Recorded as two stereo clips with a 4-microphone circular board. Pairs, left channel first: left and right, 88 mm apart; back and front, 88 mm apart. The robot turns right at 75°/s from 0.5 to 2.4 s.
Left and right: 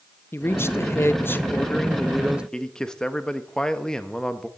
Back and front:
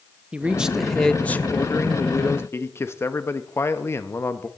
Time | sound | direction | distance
0.3 | a man speaking | 65° left | 0.5 m
2.5 | a man speaking | 165° left | 0.7 m